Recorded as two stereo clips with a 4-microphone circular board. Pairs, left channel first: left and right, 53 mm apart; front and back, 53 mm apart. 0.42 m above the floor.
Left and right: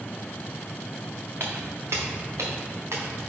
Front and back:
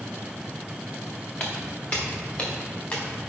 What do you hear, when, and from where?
1.4 s footsteps: 55° right, 2.0 m; by 3.2 s 65° right, 3 m